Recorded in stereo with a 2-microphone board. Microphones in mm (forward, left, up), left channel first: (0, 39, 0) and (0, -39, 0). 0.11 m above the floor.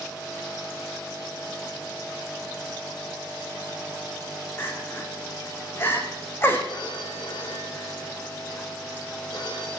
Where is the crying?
30° left (ahead or behind), 4 m.